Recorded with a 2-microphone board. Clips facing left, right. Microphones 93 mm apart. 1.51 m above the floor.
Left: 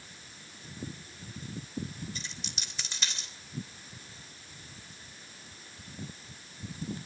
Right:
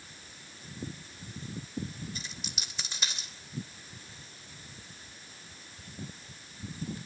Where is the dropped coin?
10° right (ahead or behind), 3 m.